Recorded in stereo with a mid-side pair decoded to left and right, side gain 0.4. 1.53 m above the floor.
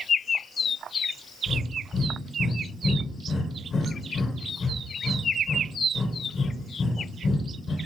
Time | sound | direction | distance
1.5 | breathing | 50° left | 1.0 m